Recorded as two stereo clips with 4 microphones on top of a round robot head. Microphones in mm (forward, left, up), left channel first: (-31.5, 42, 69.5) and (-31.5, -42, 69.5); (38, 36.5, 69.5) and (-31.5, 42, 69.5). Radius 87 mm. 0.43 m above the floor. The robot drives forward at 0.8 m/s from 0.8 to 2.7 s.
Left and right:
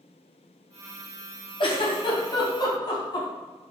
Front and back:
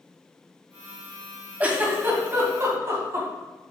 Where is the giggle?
105° left, 2.0 m; by 3.3 s 125° left, 2.5 m.